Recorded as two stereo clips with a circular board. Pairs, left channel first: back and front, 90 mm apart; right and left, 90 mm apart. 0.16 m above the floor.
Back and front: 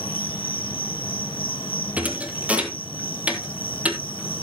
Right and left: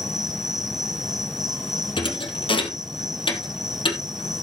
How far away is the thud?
About 1.8 m.